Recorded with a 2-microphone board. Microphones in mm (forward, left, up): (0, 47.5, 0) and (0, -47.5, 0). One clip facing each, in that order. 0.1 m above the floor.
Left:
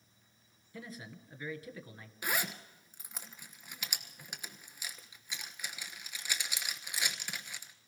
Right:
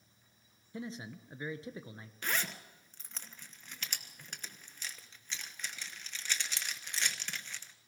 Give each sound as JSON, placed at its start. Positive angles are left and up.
{"t": 0.7, "sound": "a man speaking", "side_deg": -25, "distance_m": 1.4}
{"t": 2.2, "sound": "a zipper", "side_deg": 10, "distance_m": 1.1}